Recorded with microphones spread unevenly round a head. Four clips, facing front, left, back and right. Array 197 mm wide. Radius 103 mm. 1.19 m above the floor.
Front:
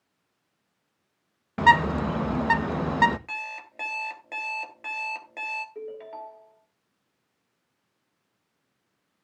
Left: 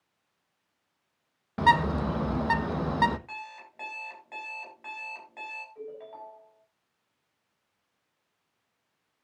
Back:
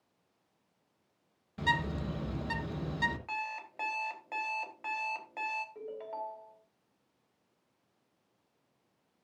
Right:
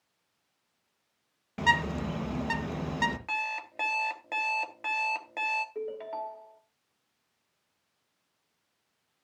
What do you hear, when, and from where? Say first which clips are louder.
1.6 s a bird: left 5 dB, front 14 dB; 15° left, 1.1 m
3.3 s an alarm clock: right 8 dB, front 1 dB; 65° right, 3.5 m
5.8 s a ringtone: right 6 dB, front 3 dB; 70° right, 3 m